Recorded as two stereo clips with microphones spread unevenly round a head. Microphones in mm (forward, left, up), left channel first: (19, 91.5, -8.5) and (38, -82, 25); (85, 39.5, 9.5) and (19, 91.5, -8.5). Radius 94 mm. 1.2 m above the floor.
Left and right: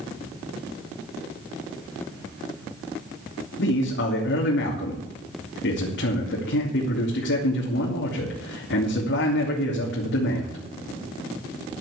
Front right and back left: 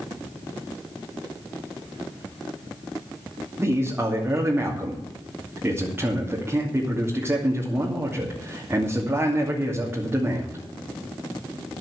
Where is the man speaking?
80° left, 2.5 m.